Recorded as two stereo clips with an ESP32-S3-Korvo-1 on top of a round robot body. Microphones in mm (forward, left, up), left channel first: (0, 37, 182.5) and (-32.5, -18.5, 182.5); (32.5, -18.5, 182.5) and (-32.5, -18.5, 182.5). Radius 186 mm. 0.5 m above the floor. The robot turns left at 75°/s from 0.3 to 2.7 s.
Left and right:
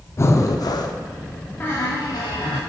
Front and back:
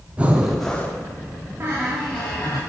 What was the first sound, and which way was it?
Breathing, 110° left.